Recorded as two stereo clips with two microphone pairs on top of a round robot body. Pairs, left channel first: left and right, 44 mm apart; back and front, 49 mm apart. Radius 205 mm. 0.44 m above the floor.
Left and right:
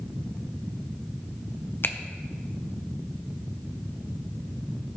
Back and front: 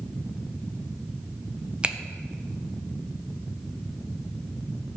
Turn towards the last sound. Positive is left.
turn(degrees=60)